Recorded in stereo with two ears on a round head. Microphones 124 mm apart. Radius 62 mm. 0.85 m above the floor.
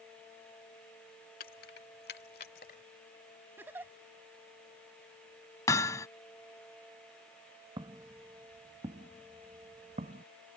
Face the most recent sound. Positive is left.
turn(degrees=-45)  # may be behind; listen again after turning